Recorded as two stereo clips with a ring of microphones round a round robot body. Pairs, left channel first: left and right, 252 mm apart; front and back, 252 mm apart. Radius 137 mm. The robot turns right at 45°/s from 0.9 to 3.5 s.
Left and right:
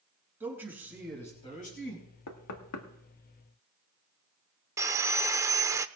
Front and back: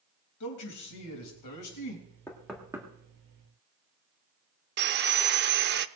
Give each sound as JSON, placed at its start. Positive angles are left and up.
{"t": 0.4, "sound": "a man speaking", "azimuth_deg": -5, "distance_m": 4.0}
{"t": 2.3, "sound": "knocking", "azimuth_deg": 80, "distance_m": 1.6}
{"t": 4.8, "sound": "sawing", "azimuth_deg": -165, "distance_m": 0.6}